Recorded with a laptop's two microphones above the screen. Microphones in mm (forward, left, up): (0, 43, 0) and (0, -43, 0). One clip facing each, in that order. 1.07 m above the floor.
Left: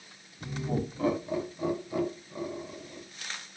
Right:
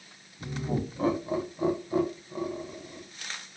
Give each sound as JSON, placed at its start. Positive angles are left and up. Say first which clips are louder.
{"t": 0.4, "sound": "laughter", "louder": "right 1 dB", "side_deg": -20, "distance_m": 1.0}